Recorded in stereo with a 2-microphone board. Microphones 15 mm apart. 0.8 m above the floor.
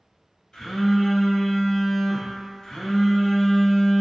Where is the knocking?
I don't hear knocking.